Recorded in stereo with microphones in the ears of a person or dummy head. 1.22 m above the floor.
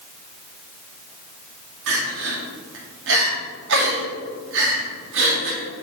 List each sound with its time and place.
1.9 s crying: 65° right (ahead or behind), 1.5 m